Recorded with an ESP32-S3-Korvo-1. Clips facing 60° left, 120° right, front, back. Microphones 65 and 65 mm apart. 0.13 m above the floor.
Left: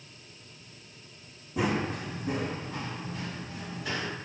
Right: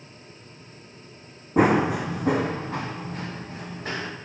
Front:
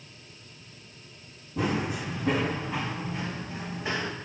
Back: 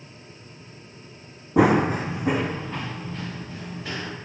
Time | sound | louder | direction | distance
1.6 | running footsteps | right 10 dB, back 11 dB | 165° right | 0.5 m